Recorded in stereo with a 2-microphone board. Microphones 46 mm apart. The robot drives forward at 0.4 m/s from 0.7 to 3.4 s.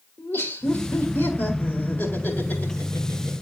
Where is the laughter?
55° left (ahead or behind), 1.9 m; by 3.3 s 35° left (ahead or behind), 2.5 m.